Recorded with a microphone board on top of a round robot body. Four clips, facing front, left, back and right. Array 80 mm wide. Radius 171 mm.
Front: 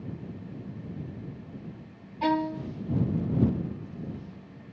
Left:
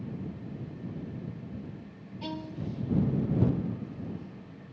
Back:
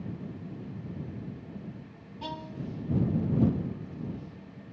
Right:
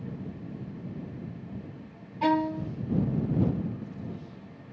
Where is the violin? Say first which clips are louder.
Right 12 dB, front 12 dB; 60° right.